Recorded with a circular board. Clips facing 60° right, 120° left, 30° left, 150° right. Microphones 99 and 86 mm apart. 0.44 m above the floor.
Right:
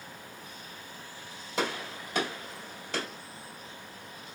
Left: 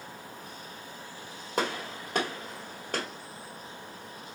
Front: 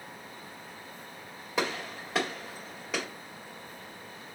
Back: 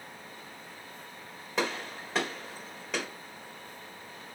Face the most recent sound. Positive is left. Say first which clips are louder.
# left 1 dB, even
turn(degrees=115)